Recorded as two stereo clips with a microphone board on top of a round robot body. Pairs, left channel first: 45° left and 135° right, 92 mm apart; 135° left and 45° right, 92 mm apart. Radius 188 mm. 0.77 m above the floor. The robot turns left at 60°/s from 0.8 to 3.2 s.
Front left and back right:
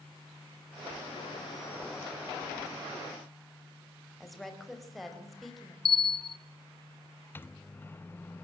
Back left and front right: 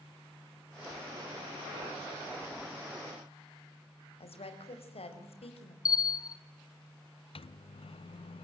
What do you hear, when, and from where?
4.2 s a woman speaking: 135° left, 5 m
5.8 s a bell: 80° left, 1.0 m
7.3 s a microwave: 115° left, 0.7 m